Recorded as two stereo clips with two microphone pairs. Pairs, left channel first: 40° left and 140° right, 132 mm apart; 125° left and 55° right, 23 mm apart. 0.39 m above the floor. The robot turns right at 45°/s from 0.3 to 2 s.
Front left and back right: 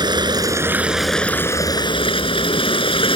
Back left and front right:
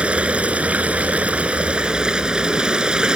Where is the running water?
80° right; by 3.2 s 5° right.